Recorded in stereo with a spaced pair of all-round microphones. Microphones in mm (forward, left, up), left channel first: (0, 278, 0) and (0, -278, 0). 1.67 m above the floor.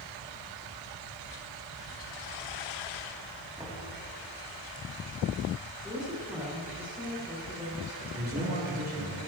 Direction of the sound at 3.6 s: 10° right (ahead or behind).